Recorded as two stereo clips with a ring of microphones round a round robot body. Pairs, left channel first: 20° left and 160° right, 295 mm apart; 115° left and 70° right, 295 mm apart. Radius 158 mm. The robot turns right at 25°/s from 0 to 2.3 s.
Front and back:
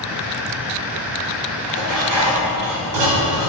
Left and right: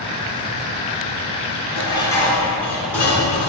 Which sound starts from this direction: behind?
Dishes clattering, at 1.7 s.